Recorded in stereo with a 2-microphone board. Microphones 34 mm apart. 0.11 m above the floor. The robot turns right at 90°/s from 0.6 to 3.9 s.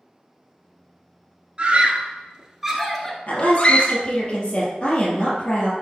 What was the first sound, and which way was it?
A scream, 35° right (ahead or behind).